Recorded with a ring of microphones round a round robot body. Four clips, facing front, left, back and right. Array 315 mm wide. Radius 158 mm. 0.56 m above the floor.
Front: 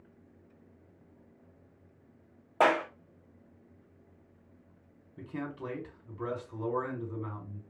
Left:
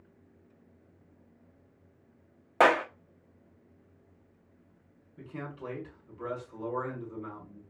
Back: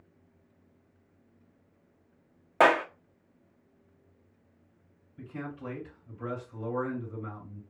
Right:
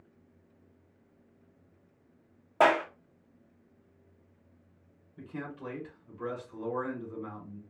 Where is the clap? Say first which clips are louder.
Left 1 dB, back 3 dB; 135° left, 0.7 m.